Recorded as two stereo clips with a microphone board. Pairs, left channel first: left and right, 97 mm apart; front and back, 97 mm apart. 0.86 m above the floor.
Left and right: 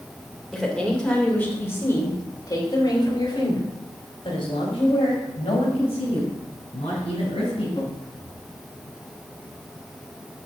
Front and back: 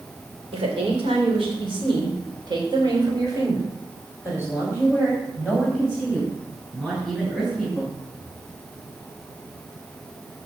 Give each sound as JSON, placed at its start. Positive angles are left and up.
{"t": 0.5, "sound": "a woman speaking", "azimuth_deg": 180, "distance_m": 3.0}